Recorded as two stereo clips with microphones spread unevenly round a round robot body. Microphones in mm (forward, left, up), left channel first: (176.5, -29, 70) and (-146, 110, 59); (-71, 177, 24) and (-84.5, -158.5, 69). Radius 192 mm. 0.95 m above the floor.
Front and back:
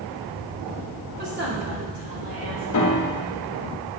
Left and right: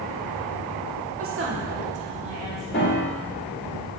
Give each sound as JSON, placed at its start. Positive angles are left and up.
{"t": 1.2, "sound": "a woman speaking", "azimuth_deg": -140, "distance_m": 1.7}
{"t": 2.7, "sound": "a piano", "azimuth_deg": 25, "distance_m": 1.2}